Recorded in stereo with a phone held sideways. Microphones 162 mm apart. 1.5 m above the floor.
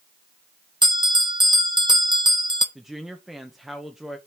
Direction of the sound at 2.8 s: Centre (ahead or behind).